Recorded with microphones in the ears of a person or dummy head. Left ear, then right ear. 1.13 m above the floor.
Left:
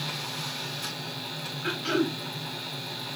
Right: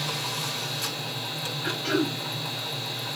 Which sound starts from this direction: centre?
Throat clearing, at 1.6 s.